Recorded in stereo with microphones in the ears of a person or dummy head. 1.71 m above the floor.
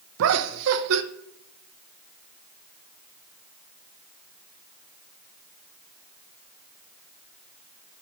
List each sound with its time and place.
0.2 s laughter: 70° right (ahead or behind), 0.7 m